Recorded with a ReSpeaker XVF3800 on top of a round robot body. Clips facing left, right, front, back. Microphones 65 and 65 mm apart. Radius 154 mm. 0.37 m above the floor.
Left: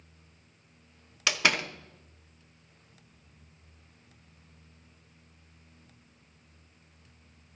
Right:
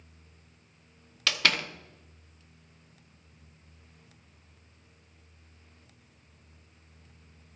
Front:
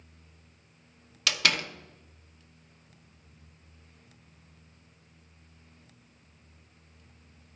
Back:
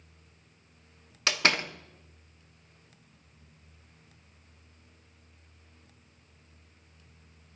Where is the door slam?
150° left, 1.0 m.